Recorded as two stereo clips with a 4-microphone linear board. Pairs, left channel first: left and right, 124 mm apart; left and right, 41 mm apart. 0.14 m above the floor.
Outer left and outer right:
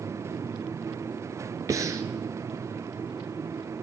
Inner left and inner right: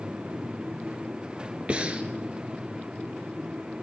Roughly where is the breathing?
Right.